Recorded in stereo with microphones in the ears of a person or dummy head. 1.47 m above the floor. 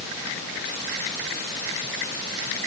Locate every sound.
Only background noise.